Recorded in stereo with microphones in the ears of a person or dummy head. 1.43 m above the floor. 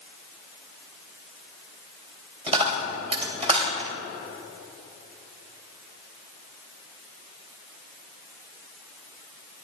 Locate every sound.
2.5 s a dropped coin: 30° right (ahead or behind), 2.5 m